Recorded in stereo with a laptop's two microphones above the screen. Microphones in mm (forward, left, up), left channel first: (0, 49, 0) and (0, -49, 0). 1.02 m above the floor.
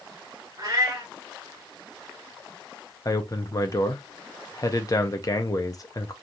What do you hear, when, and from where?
0.6 s a cat meowing: 40° right (ahead or behind), 1.3 m
3.0 s a man speaking: 40° left (ahead or behind), 0.5 m